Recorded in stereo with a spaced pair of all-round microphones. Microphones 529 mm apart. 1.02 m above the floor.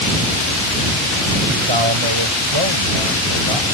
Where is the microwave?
I don't hear a microwave.